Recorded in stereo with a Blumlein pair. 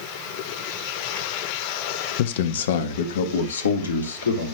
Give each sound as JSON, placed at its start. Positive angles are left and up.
{"t": 2.2, "sound": "a man speaking", "azimuth_deg": 50, "distance_m": 1.0}